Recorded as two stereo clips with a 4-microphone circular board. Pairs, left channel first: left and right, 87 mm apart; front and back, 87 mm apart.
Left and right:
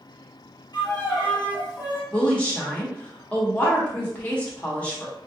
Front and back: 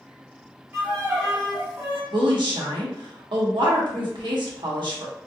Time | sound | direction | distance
0.7 | a violin | 115° left | 1.4 m
2.1 | a woman speaking | 165° left | 1.0 m